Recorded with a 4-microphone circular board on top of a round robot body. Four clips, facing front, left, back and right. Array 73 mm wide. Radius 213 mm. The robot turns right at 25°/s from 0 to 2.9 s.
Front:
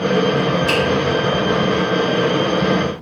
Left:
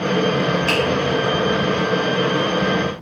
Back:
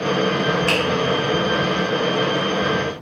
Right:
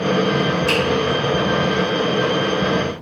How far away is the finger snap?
About 1.3 m.